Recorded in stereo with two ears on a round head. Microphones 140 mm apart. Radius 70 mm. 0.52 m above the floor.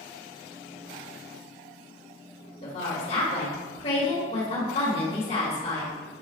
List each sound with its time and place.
2.6 s a woman speaking: 40° left (ahead or behind), 1.4 m